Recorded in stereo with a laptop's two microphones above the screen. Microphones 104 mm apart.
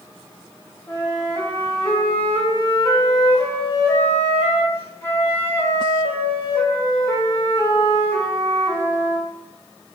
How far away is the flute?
About 0.6 m.